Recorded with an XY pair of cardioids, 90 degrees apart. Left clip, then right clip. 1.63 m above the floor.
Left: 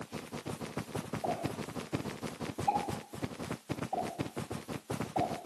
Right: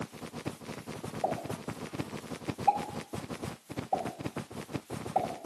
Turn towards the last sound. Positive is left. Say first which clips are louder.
# right 4 dB
turn(degrees=-65)